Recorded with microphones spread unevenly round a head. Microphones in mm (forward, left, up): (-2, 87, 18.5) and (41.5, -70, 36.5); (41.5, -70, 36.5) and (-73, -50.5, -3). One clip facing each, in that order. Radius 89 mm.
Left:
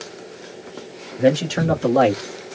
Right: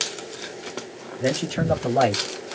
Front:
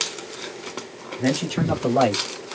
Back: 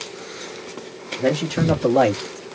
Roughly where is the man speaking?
Left.